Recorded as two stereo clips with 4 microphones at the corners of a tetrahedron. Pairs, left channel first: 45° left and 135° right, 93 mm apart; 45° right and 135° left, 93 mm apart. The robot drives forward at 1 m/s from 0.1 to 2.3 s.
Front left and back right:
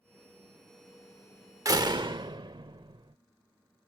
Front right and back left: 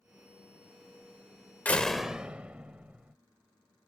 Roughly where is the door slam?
Right.